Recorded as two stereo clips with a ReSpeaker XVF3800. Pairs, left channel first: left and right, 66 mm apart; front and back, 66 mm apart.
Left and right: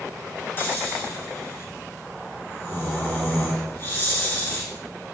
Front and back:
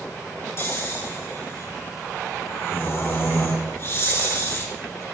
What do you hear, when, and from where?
0.6 s snoring: 40° left, 3 m